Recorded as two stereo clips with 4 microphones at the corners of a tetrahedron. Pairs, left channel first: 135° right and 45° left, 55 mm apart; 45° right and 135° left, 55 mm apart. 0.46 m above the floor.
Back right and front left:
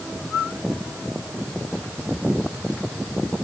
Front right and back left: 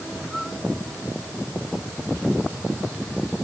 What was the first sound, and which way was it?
Only background noise.